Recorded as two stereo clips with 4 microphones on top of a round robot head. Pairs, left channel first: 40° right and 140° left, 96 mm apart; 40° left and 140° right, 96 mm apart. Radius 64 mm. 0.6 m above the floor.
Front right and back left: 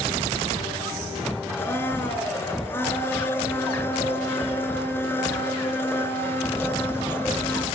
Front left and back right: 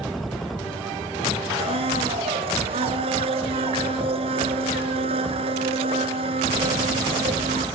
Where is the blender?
110° right, 3 m.